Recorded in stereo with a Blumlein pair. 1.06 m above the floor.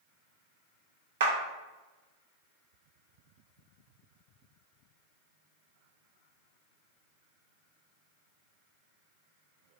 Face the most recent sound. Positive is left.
turn(degrees=-55)